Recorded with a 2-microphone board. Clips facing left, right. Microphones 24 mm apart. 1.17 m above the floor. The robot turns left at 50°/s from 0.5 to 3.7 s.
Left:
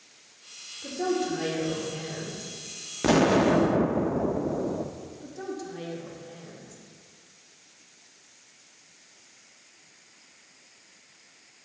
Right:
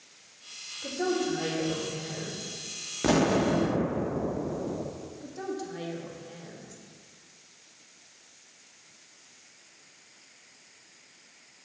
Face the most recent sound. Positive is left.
turn(degrees=-10)  # may be behind; listen again after turning